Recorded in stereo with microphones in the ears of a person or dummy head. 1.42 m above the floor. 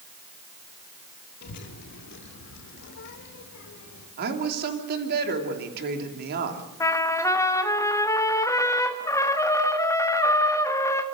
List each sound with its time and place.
1.4 s a child speaking: 50° left (ahead or behind), 1.6 m; by 4.1 s 65° left (ahead or behind), 3.5 m
4.2 s a woman speaking: 55° right (ahead or behind), 3 m
6.8 s a trumpet: 15° left (ahead or behind), 1.2 m